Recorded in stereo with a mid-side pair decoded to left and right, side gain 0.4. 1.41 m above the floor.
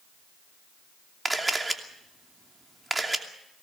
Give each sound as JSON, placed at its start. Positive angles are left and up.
{"t": 1.2, "sound": "a camera shutter", "azimuth_deg": -15, "distance_m": 2.5}